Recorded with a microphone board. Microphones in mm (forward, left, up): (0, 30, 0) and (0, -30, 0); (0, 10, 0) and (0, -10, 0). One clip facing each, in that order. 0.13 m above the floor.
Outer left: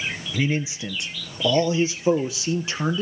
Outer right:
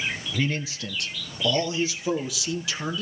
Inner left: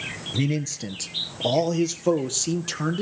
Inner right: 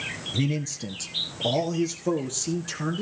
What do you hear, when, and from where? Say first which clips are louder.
0.3 s a man speaking: outer left 5 dB, inner left 2 dB; 10° left (ahead or behind), 1.6 m; by 3.0 s 30° left (ahead or behind), 3.5 m